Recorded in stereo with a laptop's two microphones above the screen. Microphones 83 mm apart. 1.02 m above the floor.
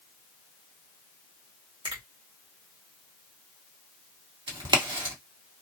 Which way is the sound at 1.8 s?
70° right (ahead or behind).